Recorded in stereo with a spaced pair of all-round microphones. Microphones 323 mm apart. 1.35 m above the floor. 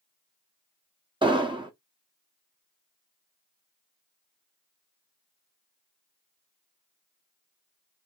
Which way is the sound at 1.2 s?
15° right (ahead or behind).